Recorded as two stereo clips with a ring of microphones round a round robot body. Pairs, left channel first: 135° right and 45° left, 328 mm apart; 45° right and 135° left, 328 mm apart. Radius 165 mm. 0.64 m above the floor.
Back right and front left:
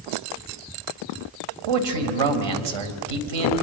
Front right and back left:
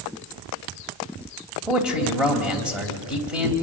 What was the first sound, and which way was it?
A man speaking, 45° left.